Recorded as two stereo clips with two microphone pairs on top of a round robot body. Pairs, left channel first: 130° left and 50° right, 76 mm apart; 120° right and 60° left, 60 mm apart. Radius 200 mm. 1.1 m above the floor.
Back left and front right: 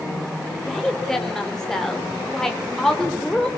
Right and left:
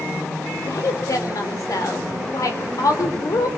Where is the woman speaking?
150° right, 4 m.